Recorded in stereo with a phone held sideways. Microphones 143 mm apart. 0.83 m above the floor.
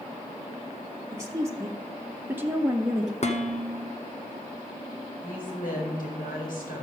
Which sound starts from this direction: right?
A woman speaking, at 1.1 s.